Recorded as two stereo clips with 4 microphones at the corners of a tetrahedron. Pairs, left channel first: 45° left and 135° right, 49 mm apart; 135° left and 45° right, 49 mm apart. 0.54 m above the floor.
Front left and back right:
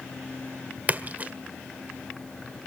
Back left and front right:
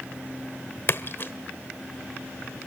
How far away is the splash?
About 1.6 m.